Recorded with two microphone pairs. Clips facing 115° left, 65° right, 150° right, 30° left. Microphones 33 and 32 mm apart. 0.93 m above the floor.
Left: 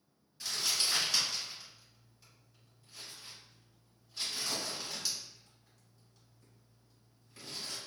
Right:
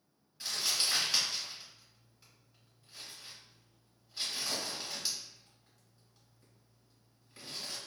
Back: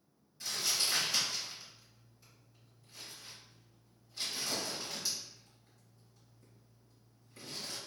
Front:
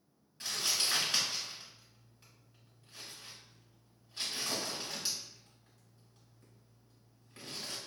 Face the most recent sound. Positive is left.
turn(degrees=5)